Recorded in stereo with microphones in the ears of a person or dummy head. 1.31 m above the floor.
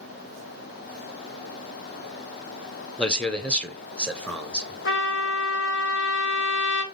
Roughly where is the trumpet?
Left.